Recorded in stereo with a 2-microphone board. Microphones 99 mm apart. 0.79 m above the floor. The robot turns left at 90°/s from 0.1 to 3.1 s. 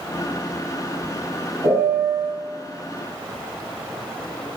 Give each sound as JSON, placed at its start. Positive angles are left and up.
{"t": 1.6, "sound": "a piano", "azimuth_deg": -135, "distance_m": 2.0}